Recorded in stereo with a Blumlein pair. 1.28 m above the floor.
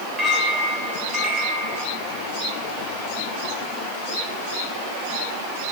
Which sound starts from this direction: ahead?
A clink, at 0.2 s.